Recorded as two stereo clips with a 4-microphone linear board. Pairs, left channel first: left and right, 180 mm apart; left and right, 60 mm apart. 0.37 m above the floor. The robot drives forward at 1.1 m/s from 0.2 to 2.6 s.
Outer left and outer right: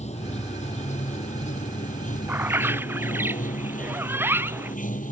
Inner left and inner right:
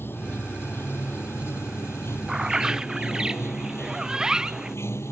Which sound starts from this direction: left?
Running water, at 0.0 s.